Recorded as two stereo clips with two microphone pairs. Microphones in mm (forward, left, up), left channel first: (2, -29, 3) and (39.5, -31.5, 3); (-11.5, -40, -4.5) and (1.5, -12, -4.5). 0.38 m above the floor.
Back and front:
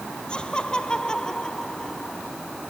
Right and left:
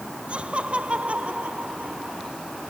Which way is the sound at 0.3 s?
110° left.